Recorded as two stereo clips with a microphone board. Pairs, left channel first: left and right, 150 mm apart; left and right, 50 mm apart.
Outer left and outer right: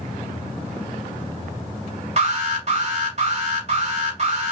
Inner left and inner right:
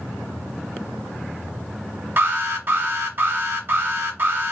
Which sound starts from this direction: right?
An alarm, at 2.2 s.